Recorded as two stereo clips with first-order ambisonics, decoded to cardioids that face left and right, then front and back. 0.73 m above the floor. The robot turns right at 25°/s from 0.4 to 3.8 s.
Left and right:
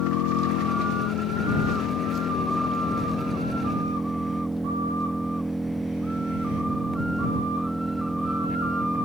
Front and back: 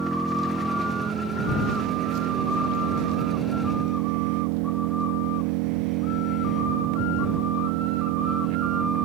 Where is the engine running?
100° left; by 9.1 s 175° right.